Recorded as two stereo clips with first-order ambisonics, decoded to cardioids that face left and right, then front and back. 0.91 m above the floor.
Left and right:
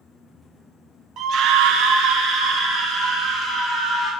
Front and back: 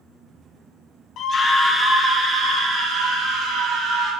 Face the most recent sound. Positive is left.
turn(degrees=-130)